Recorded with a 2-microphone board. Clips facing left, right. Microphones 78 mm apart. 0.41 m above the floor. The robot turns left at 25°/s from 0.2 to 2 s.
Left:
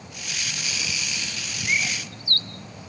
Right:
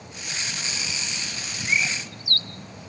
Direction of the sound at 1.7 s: 45° left (ahead or behind).